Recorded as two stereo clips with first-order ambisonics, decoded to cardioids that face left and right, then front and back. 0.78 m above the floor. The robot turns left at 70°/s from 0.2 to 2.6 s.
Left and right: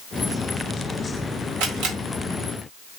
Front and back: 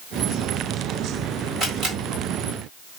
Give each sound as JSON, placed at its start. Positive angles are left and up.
{"t": 1.6, "sound": "a camera shutter", "azimuth_deg": -110, "distance_m": 2.5}